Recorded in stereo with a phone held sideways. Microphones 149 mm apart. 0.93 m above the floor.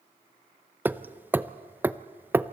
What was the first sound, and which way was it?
Hammering, 10° right (ahead or behind).